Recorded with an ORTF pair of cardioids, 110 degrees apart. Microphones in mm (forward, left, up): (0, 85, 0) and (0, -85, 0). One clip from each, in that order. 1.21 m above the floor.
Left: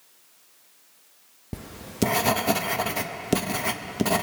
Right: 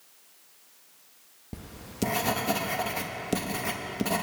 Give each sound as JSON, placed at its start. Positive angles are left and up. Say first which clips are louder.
{"t": 1.5, "sound": "writing", "louder": "left 6 dB", "azimuth_deg": 25, "distance_m": 0.9}